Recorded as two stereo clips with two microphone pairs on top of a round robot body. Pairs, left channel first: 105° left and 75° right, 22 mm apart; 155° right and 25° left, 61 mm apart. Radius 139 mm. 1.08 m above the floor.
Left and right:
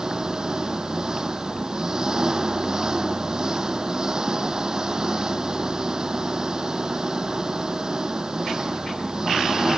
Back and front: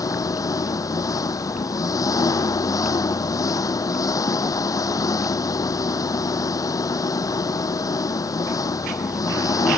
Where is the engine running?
135° right.